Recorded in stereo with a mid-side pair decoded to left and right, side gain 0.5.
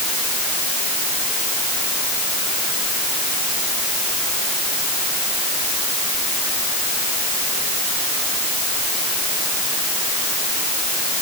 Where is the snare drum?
I don't hear a snare drum.